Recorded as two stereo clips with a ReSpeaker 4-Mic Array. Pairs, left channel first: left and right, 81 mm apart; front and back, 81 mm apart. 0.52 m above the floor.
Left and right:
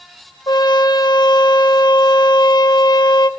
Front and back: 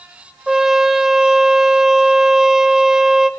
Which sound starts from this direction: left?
A trumpet, at 0.5 s.